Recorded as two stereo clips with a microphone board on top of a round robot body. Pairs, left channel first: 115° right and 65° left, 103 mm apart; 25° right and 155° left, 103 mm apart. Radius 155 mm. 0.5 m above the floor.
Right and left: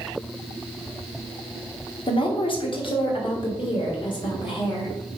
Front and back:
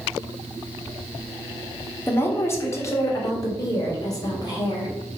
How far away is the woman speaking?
About 1.9 m.